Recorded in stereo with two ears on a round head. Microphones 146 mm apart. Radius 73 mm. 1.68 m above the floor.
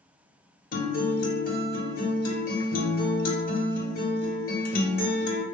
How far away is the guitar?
About 0.9 m.